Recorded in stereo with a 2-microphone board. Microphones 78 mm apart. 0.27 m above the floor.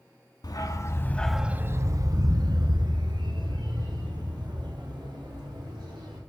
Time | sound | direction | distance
0.4 | a dog barking | 60° left (ahead or behind) | 1.0 m